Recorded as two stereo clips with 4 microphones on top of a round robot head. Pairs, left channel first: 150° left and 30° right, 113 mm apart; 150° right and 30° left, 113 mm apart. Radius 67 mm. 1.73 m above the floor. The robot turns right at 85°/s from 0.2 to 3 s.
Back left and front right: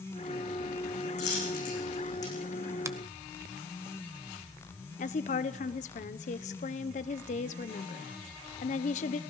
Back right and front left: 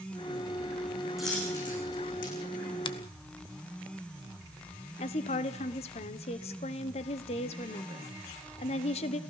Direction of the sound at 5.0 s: 175° left.